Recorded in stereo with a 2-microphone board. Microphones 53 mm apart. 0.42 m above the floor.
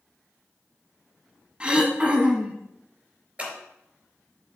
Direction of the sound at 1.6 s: 20° right (ahead or behind).